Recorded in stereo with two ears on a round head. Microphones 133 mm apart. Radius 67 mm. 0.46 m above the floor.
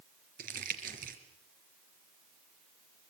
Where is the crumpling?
60° right (ahead or behind), 3.5 m.